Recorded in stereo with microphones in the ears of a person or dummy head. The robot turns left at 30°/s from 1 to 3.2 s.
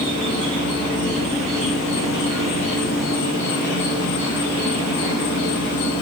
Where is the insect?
140° left, 1.0 m; by 6.0 s 75° left, 1.0 m.